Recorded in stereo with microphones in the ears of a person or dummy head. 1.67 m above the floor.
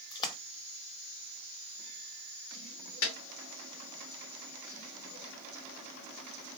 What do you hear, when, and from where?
0.1 s a splash: 25° left (ahead or behind), 0.7 m
3.0 s a snare drum: 70° left (ahead or behind), 2 m